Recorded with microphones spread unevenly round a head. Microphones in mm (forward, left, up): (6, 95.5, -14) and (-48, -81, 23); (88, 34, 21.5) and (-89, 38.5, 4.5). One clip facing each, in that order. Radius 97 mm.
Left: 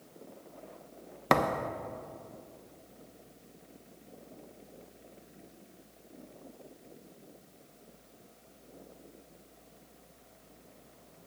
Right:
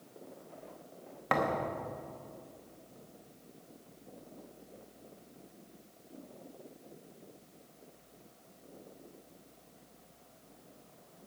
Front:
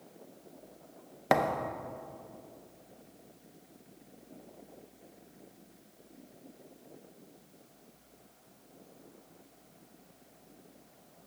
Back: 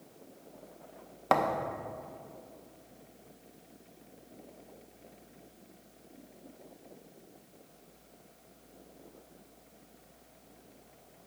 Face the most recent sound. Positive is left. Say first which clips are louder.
# left 3 dB, even
turn(degrees=60)